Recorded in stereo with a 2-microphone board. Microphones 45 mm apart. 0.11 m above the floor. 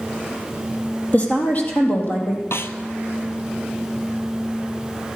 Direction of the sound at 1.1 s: 35° left (ahead or behind).